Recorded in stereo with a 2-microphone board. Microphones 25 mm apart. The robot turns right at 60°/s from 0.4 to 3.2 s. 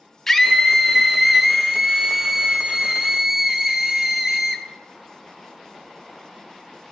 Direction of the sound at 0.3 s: 15° left (ahead or behind).